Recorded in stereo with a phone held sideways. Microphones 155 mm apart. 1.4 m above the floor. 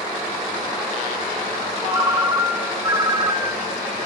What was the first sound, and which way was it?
A ringtone, 25° right (ahead or behind).